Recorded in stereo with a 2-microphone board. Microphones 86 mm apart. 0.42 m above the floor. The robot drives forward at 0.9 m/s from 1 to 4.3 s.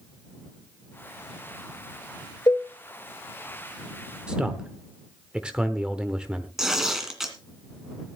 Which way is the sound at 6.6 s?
5° right (ahead or behind).